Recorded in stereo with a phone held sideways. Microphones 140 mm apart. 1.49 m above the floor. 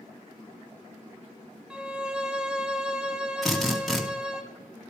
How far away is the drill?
About 2 m.